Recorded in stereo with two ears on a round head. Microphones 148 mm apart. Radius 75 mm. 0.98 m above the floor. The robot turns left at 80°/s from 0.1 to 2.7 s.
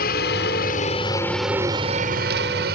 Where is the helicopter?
60° left (ahead or behind); by 2.8 s 65° right (ahead or behind).